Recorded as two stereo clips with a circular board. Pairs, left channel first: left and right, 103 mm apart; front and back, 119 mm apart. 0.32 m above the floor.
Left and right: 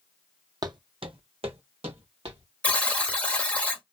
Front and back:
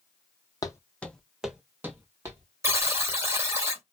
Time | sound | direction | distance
0.6 | footsteps | 50° right | 0.5 m
2.6 | a buzzer | 150° left | 1.0 m